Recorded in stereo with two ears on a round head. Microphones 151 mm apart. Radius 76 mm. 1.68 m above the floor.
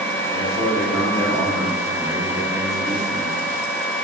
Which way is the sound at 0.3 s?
15° right (ahead or behind).